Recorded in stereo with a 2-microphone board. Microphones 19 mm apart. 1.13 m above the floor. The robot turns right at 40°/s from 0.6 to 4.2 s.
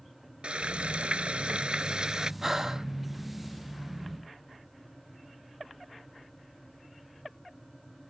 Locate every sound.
0.4 s frying: 110° right; by 2.3 s 40° right
2.4 s breathing: 25° right (ahead or behind); by 2.9 s 35° right (ahead or behind)